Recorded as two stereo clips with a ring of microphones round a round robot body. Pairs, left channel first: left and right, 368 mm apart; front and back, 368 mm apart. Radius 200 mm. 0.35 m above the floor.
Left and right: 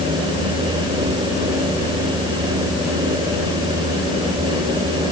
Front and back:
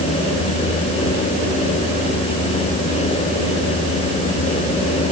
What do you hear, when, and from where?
Only background noise.